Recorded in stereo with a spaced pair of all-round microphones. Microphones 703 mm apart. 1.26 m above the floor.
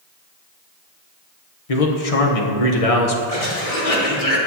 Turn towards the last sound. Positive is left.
turn(degrees=55)  # may be behind; listen again after turning